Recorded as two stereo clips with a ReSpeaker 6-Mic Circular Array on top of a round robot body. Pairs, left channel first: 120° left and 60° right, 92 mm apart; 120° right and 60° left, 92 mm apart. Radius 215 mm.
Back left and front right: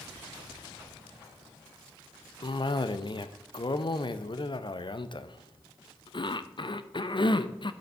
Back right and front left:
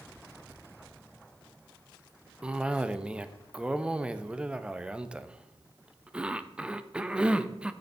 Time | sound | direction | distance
2.4 | a cough | 135° left | 0.7 m